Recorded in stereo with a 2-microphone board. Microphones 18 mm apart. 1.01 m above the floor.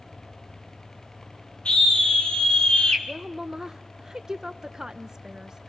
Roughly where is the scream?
Left.